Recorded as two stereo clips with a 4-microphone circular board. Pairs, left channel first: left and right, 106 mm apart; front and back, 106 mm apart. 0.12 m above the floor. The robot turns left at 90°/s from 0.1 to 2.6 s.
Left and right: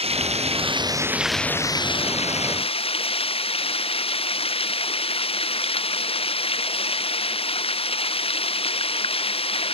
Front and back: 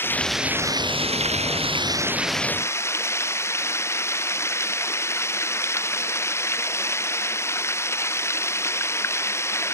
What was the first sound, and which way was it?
Running water, 70° right.